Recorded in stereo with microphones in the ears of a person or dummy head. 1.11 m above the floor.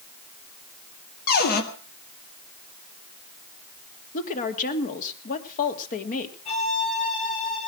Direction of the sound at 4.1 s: 45° left (ahead or behind).